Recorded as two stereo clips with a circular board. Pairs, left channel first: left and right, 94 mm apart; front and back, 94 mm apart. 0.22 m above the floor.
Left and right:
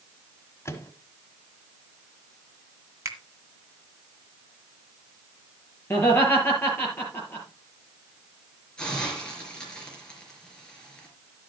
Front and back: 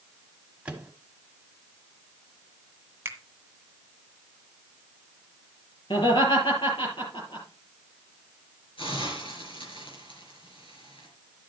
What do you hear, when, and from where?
0.7 s a microwave: 115° left, 1.2 m
3.0 s a finger snap: 130° right, 1.9 m
5.9 s laughter: 25° left, 4.5 m
8.8 s a hiss: 10° left, 4 m